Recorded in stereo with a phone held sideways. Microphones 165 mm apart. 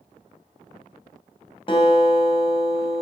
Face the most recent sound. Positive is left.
turn(degrees=35)  # may be behind; listen again after turning